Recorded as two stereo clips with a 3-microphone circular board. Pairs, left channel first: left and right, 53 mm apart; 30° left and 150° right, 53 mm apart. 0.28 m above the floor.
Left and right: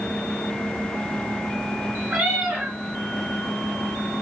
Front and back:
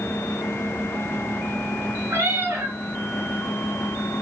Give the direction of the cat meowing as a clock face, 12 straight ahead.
5 o'clock.